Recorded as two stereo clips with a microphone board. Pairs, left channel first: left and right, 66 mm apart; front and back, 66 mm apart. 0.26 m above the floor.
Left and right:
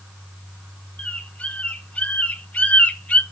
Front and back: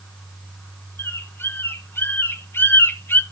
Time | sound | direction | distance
1.0 | a bird | 30° left | 0.5 m